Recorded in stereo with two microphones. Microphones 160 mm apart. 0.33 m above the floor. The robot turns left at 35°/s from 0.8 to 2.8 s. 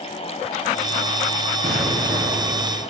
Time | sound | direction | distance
1.6 | an explosion | 85° right | 4 m